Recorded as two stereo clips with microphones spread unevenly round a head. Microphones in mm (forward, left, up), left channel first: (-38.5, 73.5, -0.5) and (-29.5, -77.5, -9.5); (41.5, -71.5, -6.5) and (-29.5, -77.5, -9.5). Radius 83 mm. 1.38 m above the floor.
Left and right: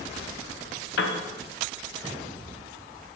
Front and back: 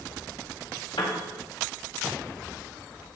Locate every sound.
1.0 s a piano: 70° left, 0.6 m